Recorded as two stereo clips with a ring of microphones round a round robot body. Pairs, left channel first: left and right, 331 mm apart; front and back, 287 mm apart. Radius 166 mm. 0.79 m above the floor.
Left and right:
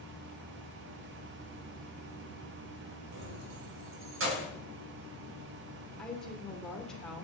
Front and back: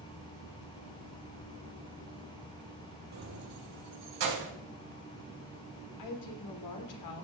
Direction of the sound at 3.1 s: 135° right.